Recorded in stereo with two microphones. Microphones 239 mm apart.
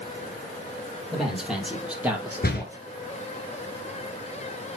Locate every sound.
1.1 s a man speaking: centre (ahead or behind), 4.5 m; by 2.8 s 15° right (ahead or behind), 3.5 m
2.4 s a door slam: 40° left (ahead or behind), 1.3 m